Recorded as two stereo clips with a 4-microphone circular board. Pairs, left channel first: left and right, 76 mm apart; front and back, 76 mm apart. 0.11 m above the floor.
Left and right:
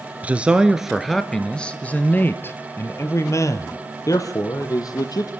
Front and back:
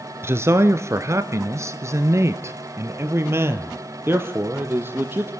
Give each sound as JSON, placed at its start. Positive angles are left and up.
{"t": 0.2, "sound": "a man speaking", "azimuth_deg": -150, "distance_m": 1.3}